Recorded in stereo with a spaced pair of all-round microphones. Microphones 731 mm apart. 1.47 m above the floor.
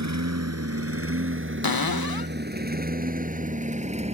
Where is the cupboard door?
30° left (ahead or behind).